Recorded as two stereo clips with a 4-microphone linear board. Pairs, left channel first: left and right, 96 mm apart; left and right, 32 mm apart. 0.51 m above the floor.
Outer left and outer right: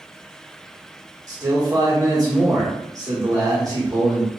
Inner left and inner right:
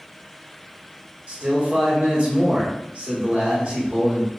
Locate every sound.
1.3 s a man speaking: 40° right (ahead or behind), 0.9 m